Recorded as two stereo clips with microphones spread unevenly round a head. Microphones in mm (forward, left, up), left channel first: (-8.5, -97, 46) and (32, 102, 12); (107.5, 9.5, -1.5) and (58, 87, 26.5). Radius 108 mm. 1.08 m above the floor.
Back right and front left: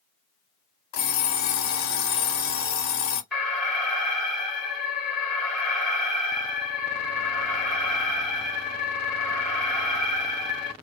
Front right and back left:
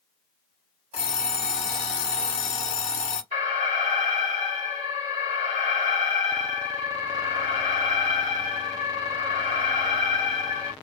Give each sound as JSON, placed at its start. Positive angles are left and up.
{"t": 0.9, "sound": "an alarm clock", "azimuth_deg": -115, "distance_m": 1.1}
{"t": 3.3, "sound": "an alarm", "azimuth_deg": 170, "distance_m": 1.6}